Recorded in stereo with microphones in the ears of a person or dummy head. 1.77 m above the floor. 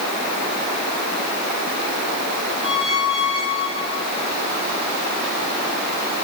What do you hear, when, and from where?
2.6 s a squeak: 65° left (ahead or behind), 3.5 m